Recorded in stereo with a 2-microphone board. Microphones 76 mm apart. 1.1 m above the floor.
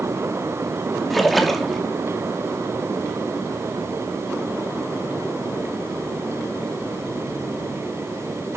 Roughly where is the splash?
Centre.